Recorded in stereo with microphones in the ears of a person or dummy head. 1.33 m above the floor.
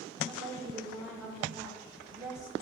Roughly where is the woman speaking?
Centre.